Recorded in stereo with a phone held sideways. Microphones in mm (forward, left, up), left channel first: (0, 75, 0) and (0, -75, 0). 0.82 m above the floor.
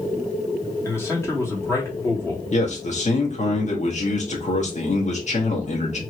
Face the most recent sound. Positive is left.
turn(degrees=50)  # may be behind; listen again after turning